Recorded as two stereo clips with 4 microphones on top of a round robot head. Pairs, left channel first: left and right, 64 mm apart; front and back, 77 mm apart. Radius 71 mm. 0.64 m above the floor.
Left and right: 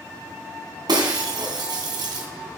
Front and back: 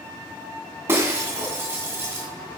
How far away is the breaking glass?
About 2.5 m.